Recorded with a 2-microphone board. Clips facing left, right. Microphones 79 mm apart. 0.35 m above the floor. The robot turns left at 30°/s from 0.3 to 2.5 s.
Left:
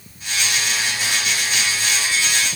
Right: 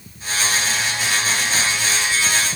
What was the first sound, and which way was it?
Only background noise.